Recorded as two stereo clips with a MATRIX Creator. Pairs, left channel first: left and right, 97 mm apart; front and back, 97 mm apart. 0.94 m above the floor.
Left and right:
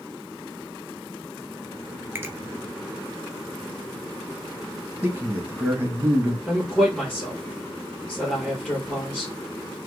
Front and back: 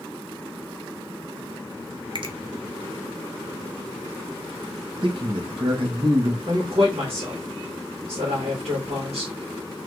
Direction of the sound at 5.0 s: 155° right.